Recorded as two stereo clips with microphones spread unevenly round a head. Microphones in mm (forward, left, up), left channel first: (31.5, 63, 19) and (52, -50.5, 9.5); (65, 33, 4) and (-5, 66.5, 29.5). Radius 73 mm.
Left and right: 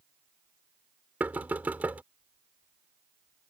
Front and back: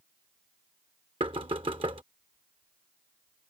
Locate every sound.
1.2 s knocking: 160° right